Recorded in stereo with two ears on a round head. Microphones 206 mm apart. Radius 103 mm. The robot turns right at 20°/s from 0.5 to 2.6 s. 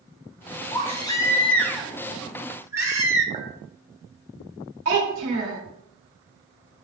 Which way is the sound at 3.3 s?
30° right (ahead or behind).